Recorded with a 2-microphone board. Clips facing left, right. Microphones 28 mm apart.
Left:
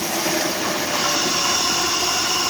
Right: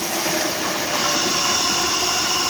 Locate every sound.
Only background noise.